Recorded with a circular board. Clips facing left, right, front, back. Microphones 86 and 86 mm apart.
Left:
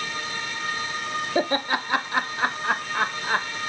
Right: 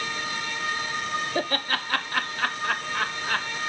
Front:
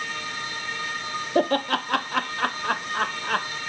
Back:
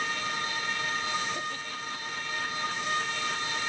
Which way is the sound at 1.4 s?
15° left.